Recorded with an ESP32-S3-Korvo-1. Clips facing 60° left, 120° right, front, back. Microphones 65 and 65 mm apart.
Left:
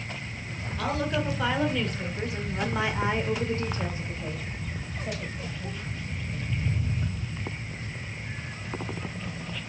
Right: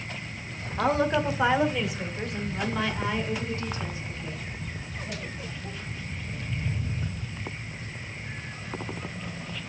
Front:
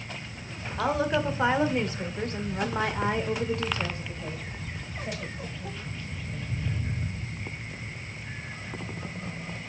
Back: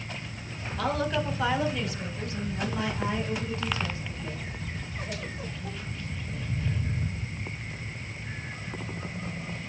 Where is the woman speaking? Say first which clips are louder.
Right 5 dB, front 2 dB; 65° right, 2 m; by 5.8 s 40° left, 3 m.